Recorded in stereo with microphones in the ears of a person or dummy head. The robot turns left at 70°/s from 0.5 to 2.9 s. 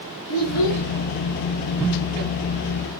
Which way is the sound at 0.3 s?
75° left (ahead or behind).